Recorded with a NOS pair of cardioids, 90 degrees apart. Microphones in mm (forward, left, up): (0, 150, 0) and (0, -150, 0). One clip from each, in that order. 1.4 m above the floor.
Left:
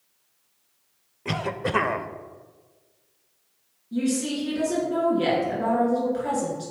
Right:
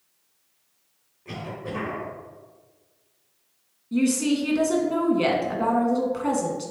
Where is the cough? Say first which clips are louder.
Left 7 dB; 65° left, 0.5 m.